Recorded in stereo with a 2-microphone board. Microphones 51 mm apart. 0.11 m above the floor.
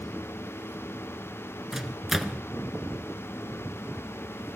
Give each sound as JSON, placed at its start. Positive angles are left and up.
{"t": 1.7, "sound": "a microwave", "side_deg": -5, "distance_m": 1.2}